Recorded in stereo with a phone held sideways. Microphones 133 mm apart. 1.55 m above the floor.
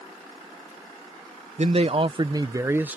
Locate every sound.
1.6 s a man speaking: 55° right (ahead or behind); by 3.0 s 10° right (ahead or behind)